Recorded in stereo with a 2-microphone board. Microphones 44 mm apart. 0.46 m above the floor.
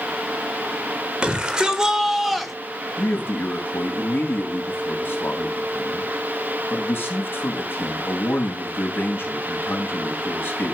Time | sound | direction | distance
1.2 | a shout | 25° right (ahead or behind) | 1.9 m
3.0 | a man speaking | 65° left (ahead or behind) | 3 m